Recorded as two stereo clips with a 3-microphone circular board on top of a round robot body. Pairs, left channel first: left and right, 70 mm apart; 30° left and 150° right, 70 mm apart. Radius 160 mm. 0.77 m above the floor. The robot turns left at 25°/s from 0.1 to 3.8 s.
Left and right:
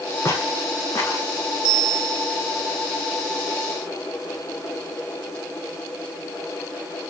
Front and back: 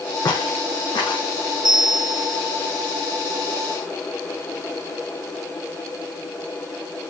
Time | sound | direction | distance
0.2 | footsteps | 35° left | 2.5 m
1.6 | a bell | 165° right | 2.5 m